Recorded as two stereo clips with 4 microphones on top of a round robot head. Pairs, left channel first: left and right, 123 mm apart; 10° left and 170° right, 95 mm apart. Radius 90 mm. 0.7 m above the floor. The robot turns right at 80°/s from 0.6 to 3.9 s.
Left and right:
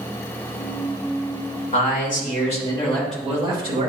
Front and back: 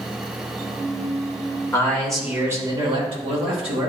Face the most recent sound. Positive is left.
turn(degrees=-120)